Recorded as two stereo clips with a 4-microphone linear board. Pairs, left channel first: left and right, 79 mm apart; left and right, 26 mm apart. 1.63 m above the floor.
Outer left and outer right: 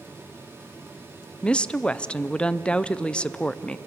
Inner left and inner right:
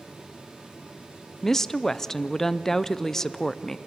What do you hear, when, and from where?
1.4 s a woman speaking: 15° left (ahead or behind), 0.6 m